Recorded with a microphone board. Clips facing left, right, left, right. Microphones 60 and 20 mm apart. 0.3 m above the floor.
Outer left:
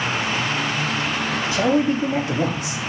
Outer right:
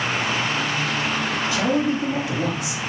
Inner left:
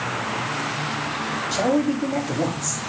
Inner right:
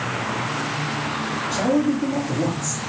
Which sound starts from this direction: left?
A man speaking, at 1.5 s.